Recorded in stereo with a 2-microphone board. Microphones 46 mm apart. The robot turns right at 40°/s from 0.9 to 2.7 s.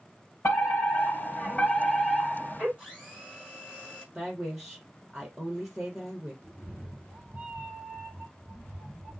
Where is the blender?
25° right (ahead or behind), 4.5 m.